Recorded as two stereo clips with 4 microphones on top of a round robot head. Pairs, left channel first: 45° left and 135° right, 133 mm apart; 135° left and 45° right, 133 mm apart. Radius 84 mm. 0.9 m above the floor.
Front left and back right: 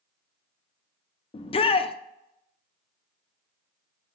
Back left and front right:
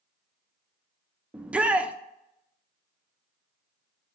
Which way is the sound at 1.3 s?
35° left.